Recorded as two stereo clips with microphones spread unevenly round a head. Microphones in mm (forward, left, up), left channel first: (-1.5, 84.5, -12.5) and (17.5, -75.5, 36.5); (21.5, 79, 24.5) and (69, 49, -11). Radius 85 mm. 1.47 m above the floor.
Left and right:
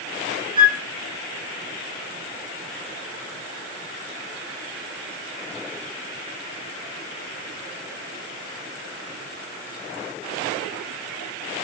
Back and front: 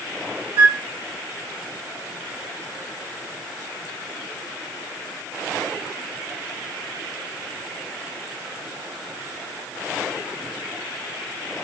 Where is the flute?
125° right, 1.2 m.